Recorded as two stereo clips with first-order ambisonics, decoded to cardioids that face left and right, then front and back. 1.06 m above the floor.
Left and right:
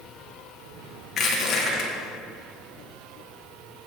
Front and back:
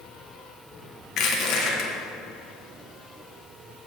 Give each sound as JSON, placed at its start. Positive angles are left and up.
{"t": 1.2, "sound": "crushing", "azimuth_deg": 35, "distance_m": 1.2}